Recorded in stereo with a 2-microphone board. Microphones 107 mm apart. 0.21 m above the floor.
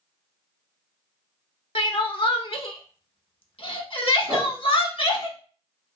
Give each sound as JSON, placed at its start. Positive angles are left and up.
{"t": 1.8, "sound": "crying", "side_deg": 60, "distance_m": 0.5}
{"t": 4.3, "sound": "a whoosh", "side_deg": -50, "distance_m": 2.0}